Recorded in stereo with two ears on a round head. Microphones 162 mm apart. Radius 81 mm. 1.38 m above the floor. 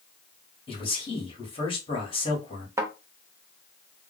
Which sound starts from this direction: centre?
A thud, at 2.8 s.